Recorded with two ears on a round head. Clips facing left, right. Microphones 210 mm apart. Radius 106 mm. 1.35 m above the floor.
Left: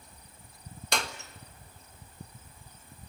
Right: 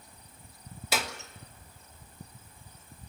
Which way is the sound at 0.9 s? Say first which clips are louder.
Right 1 dB; 5° right (ahead or behind).